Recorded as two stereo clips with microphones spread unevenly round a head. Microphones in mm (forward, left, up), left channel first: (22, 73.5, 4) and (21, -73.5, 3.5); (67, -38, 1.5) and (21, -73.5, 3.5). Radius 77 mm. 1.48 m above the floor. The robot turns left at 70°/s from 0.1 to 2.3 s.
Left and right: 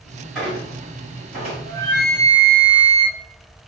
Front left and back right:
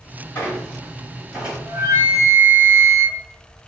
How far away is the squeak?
About 1.6 m.